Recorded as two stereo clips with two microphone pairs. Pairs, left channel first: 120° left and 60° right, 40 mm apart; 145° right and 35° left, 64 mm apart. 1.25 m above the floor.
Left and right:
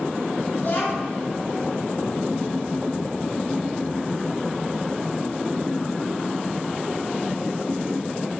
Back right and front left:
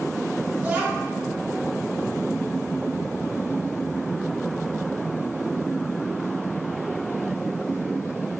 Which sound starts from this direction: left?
A child speaking, at 0.6 s.